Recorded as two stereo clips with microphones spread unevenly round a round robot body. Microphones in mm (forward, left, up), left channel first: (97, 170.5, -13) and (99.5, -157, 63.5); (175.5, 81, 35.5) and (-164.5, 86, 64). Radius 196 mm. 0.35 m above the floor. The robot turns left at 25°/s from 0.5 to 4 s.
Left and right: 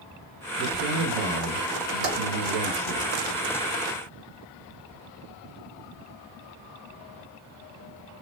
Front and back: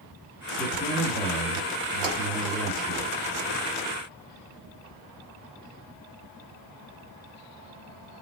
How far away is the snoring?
I don't hear snoring.